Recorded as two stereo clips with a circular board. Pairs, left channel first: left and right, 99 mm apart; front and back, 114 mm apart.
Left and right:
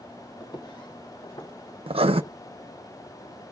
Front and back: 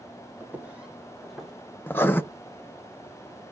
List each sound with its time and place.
0.4 s footsteps: 115° left, 1.6 m; by 1.5 s 90° left, 2.5 m
1.9 s writing: 70° right, 0.5 m